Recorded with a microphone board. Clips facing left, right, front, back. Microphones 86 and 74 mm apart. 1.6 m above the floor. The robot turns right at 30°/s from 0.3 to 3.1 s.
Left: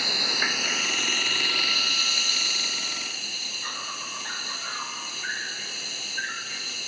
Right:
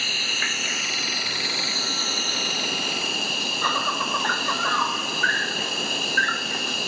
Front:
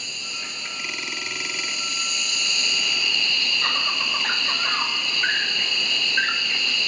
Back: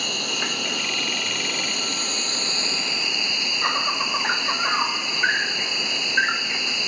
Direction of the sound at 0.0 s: 165° left.